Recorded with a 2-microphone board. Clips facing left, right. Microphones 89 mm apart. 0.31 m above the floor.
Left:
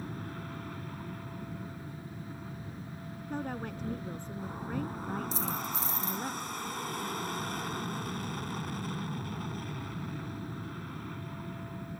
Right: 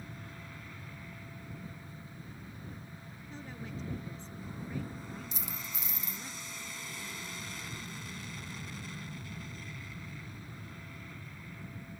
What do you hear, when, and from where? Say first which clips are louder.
0.0 s an aircraft: left 7 dB; 50° left (ahead or behind)
3.3 s a woman speaking: left 8 dB; 60° left (ahead or behind)
5.3 s a dropped coin: left 10 dB; 35° left (ahead or behind)